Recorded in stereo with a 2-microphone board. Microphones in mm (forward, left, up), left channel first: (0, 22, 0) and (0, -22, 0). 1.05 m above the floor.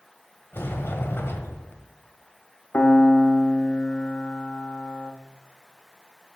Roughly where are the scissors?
I don't hear scissors.